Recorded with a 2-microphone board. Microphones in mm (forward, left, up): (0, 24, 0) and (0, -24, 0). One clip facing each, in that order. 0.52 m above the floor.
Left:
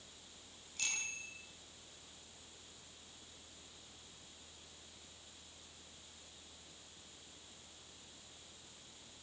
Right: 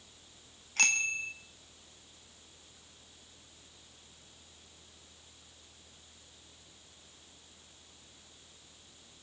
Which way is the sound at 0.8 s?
70° right (ahead or behind).